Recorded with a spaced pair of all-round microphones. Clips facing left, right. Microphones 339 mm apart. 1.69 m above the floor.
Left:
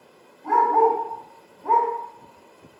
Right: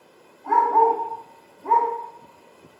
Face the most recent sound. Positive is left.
turn(degrees=-5)  # may be behind; listen again after turning